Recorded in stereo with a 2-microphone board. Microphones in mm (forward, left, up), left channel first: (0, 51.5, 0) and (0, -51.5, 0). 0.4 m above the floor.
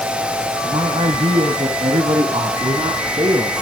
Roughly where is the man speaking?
Right.